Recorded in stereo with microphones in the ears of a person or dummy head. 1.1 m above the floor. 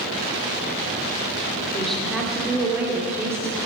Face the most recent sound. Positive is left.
turn(degrees=-15)  # may be behind; listen again after turning